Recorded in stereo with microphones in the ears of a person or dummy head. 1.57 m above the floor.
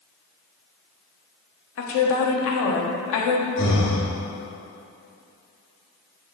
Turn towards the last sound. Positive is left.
turn(degrees=55)  # may be behind; listen again after turning